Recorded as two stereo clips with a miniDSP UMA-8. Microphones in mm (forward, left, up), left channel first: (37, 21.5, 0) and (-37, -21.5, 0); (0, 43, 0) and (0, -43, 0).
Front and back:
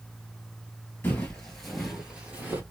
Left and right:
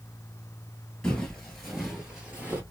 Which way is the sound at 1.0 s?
25° left.